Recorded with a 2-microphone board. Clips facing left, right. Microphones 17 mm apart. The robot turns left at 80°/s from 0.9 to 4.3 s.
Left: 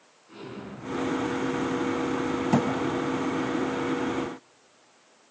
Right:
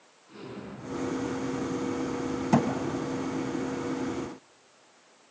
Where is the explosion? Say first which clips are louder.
Left 2 dB; 10° left, 3.5 m; by 3.5 s 160° left, 3.5 m.